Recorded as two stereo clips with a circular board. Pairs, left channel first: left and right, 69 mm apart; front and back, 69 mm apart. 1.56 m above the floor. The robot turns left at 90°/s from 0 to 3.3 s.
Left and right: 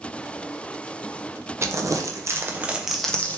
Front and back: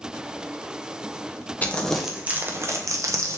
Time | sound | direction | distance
1.6 | crumpling | 55° right | 0.6 m